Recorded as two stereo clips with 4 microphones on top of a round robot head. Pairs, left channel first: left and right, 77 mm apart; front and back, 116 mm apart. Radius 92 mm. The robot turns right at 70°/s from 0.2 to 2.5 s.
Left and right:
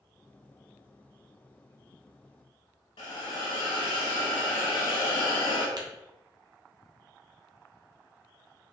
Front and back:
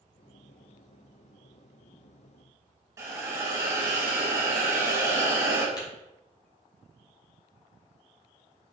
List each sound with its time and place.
3.0 s a hiss: 125° left, 0.9 m
5.8 s tapping: 60° right, 1.2 m